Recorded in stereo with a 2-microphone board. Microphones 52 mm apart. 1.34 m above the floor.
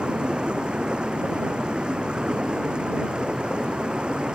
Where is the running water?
20° right (ahead or behind).